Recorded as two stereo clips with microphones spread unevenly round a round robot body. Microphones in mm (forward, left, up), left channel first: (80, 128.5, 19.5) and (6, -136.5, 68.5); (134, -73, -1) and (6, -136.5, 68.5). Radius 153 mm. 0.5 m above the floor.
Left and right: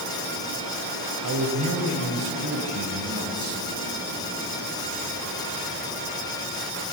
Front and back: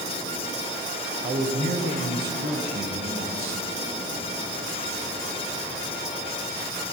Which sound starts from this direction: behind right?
A man speaking, at 1.2 s.